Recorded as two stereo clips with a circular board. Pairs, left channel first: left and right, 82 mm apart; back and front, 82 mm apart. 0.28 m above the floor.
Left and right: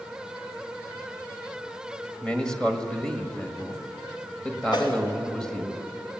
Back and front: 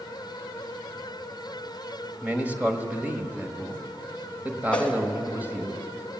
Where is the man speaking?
25° left, 1.5 m.